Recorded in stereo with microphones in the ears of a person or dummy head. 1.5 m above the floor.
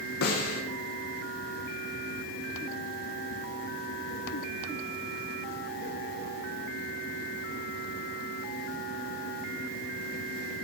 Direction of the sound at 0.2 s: 70° left (ahead or behind).